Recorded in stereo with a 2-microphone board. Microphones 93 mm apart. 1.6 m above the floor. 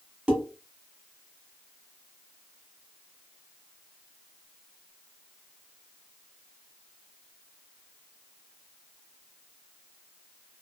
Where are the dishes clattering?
10° right (ahead or behind), 1.1 m.